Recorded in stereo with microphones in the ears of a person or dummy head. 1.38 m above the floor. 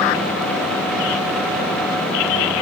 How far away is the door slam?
No door slam in this recording.